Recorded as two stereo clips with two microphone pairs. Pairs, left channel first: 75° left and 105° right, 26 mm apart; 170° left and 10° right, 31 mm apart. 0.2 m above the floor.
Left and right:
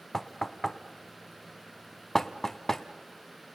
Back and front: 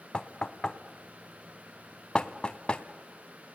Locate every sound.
0.1 s knocking: 145° left, 1.0 m